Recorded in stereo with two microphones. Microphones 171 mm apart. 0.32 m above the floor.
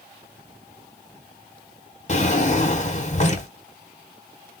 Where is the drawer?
45° left (ahead or behind), 0.9 m.